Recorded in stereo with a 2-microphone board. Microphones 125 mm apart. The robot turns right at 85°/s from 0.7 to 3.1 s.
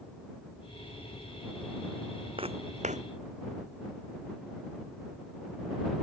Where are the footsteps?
45° right (ahead or behind); by 3.0 s 70° right (ahead or behind).